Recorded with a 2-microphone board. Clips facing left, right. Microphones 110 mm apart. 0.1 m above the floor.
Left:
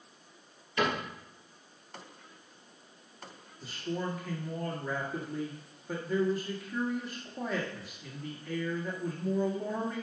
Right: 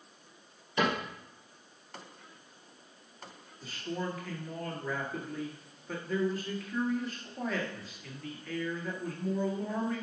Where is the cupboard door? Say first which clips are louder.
Right 1 dB; 20° right (ahead or behind), 2.5 m.